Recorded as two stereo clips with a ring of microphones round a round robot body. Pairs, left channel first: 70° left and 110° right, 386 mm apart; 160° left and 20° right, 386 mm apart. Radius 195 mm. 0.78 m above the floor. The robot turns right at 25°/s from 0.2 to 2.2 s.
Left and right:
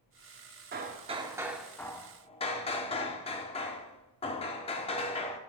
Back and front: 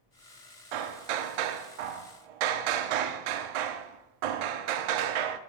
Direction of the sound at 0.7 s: 45° right.